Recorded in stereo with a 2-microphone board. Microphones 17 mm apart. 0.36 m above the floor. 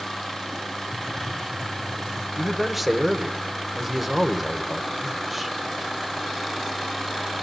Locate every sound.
0.9 s typing on a keyboard: centre (ahead or behind), 7.5 m
2.4 s a man speaking: 10° right (ahead or behind), 1.3 m